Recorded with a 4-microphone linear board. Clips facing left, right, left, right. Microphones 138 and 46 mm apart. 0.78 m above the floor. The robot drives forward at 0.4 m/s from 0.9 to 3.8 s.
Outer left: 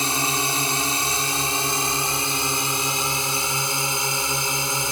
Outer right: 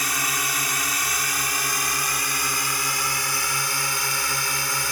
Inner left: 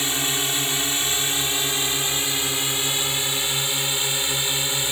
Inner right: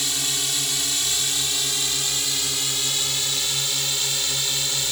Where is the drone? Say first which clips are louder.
Outer left 4 dB, inner left 3 dB; 25° left (ahead or behind); by 4.9 s 20° left (ahead or behind).